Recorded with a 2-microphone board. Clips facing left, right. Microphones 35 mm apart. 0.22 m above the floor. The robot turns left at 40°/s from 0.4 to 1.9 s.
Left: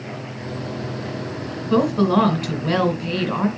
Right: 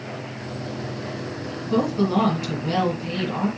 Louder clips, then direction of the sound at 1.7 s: Left 4 dB; 45° left (ahead or behind).